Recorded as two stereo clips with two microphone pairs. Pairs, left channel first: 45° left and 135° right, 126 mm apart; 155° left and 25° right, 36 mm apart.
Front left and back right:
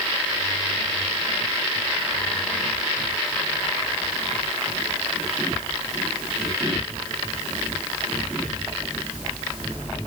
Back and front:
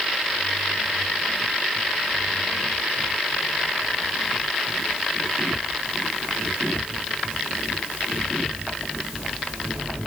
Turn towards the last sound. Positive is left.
No sound to turn to.